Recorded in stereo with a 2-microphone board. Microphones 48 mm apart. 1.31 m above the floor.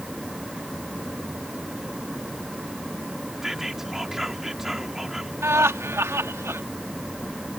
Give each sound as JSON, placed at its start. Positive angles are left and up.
{"t": 3.4, "sound": "whispering", "side_deg": -5}
{"t": 5.4, "sound": "laughter", "side_deg": -85}